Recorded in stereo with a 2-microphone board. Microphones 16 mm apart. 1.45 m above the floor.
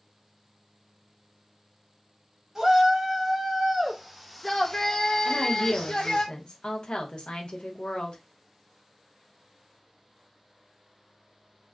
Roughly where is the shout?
Right.